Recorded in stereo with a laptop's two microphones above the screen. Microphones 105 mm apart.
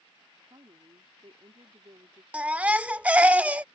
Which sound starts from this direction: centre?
A baby crying, at 2.3 s.